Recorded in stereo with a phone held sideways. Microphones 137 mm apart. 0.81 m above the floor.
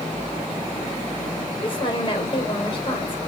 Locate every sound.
1.6 s a woman speaking: 40° left (ahead or behind), 3 m